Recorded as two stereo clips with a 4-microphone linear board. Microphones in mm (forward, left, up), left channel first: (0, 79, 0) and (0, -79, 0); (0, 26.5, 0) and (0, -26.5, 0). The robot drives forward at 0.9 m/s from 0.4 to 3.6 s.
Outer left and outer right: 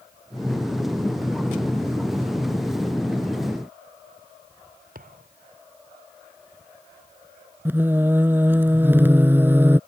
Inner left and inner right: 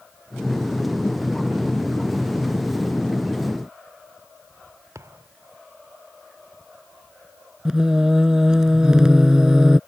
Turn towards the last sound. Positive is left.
turn(degrees=-15)  # may be behind; listen again after turning